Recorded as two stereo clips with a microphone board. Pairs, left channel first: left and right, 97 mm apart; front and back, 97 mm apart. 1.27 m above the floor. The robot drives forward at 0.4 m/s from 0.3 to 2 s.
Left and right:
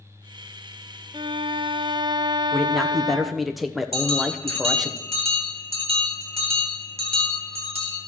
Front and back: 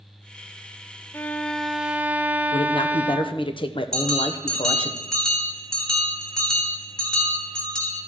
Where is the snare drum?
I don't hear a snare drum.